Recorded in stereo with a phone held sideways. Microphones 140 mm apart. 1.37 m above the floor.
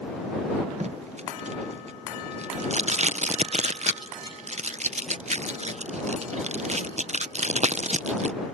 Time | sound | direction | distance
0.8 | tape being pulled | 55° right (ahead or behind) | ?